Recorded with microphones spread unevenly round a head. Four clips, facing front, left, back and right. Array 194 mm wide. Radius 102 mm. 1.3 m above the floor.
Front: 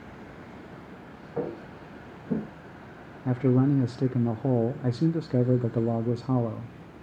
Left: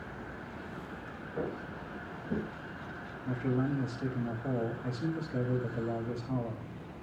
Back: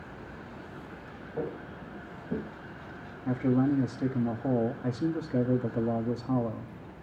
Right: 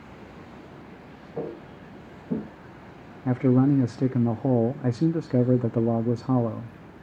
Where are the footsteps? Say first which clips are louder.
Right 3 dB, front 3 dB; 20° right, 8.5 m.